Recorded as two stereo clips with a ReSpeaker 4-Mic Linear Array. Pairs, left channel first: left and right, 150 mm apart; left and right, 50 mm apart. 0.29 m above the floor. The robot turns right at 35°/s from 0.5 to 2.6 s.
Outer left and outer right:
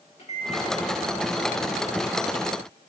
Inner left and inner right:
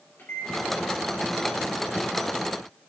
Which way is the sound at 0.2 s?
45° left (ahead or behind).